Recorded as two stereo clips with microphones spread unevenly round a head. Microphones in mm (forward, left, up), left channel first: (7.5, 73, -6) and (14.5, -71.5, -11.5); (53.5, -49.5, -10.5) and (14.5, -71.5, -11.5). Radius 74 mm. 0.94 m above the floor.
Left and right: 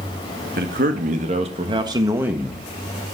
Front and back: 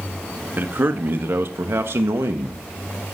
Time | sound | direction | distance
0.6 | a man speaking | 110° right | 1.8 m